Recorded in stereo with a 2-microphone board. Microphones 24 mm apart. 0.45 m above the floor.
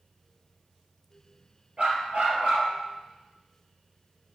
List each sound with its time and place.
1.8 s a dog barking: 60° right (ahead or behind), 2.5 m